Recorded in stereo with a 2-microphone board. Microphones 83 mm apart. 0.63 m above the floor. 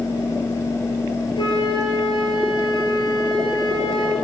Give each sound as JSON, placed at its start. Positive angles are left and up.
{"t": 1.4, "sound": "a flute", "side_deg": 85, "distance_m": 4.0}